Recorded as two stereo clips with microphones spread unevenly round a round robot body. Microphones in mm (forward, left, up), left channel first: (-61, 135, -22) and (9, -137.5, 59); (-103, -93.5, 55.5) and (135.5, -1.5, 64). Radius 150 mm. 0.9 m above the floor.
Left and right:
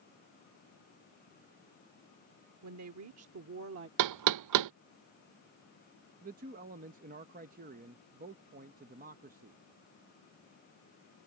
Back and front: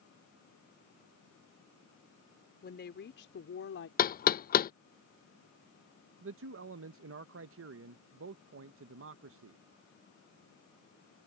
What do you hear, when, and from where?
2.6 s a woman speaking: 110° right; by 3.9 s 125° right
4.0 s knocking: 105° right
6.2 s a man speaking: 5° right